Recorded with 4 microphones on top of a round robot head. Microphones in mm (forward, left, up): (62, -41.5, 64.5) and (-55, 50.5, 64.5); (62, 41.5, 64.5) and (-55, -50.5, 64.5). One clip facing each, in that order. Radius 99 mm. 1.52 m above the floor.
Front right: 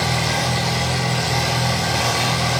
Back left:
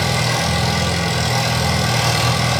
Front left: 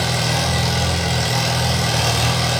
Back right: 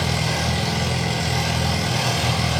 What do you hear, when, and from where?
0.0 s an engine running: 75° left, 8 m